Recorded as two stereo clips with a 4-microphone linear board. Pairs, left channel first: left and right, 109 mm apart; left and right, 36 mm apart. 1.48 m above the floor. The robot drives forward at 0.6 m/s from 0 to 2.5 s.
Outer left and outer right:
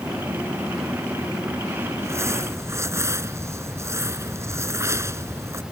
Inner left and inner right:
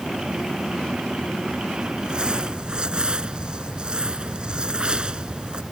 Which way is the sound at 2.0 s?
25° right (ahead or behind).